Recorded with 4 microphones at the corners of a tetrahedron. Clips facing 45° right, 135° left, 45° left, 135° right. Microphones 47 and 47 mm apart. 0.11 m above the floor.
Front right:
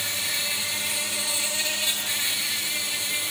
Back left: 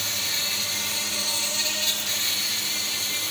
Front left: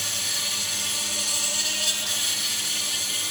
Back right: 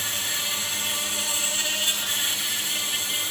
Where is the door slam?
I don't hear a door slam.